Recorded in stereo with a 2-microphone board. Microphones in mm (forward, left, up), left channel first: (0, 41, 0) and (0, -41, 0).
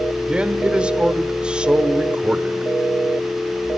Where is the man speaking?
15° right (ahead or behind), 1.3 m.